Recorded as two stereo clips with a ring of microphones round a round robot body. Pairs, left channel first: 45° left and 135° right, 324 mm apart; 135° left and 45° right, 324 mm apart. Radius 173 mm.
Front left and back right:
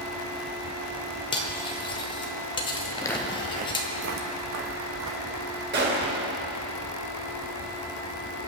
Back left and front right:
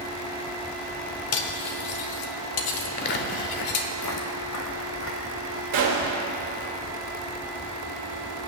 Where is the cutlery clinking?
120° left, 1.1 m.